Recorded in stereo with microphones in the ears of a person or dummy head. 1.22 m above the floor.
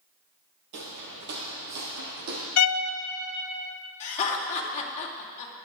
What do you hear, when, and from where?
0.7 s footsteps: 45° right (ahead or behind), 1.6 m; by 2.5 s 50° right (ahead or behind), 3 m
2.6 s a violin: 75° left (ahead or behind), 0.6 m
4.0 s laughter: 40° left (ahead or behind), 2 m